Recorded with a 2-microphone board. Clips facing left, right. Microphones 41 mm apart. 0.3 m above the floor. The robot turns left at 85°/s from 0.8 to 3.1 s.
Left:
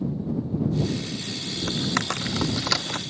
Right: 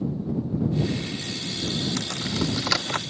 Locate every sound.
1.7 s typing on a keyboard: 75° left (ahead or behind); by 3.0 s 35° right (ahead or behind)